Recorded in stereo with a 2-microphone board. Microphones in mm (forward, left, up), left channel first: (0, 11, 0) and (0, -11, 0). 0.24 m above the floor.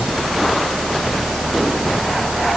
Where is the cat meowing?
No cat meowing in this recording.